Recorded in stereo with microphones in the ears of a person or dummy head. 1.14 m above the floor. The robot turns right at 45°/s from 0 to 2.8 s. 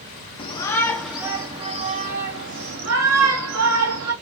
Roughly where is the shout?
Behind left.